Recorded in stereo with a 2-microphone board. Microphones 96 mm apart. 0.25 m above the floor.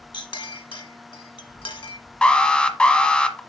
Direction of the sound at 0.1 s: 65° left (ahead or behind).